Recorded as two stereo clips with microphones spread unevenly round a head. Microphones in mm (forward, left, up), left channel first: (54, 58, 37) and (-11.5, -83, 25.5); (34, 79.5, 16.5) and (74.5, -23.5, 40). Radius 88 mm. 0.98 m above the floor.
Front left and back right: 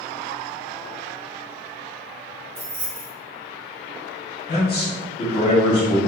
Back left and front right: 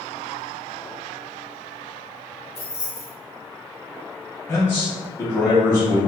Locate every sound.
2.5 s keys jangling: 170° left, 0.6 m
4.5 s a man speaking: 80° left, 1.5 m